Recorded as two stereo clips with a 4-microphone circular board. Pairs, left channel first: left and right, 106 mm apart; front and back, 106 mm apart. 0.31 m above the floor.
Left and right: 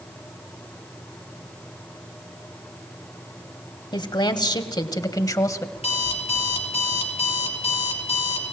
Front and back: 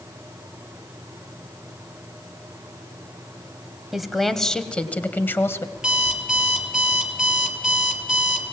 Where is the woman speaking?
95° left, 1.7 m; by 5.7 s 50° left, 1.5 m.